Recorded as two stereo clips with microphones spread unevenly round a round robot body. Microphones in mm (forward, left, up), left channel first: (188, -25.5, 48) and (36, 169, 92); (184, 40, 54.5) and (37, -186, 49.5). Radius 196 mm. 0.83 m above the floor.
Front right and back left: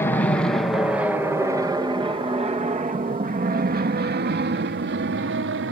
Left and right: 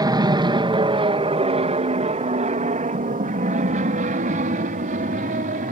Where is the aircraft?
80° right; by 5.7 s 175° left.